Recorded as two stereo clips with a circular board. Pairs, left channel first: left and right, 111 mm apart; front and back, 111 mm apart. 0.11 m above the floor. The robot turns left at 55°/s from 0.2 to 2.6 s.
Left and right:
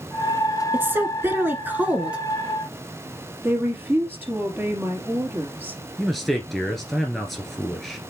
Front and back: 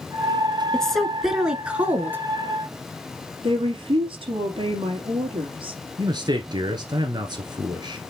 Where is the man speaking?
175° left, 1.4 m.